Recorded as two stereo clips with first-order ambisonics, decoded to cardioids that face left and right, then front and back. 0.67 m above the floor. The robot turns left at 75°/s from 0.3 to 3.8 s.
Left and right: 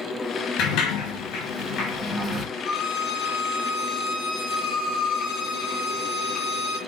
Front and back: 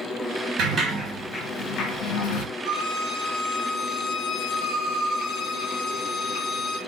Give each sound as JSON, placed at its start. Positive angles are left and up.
{"t": 0.6, "sound": "a sliding door", "azimuth_deg": 130, "distance_m": 1.1}
{"t": 2.6, "sound": "a violin", "azimuth_deg": 145, "distance_m": 2.0}